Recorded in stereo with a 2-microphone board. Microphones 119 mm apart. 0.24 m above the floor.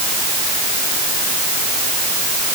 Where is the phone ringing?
No phone ringing in this recording.